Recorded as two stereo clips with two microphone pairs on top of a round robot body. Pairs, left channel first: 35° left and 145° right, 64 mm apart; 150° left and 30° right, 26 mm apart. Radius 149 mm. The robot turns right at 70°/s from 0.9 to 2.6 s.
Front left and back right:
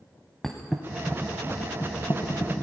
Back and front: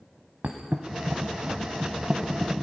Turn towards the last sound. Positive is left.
turn(degrees=70)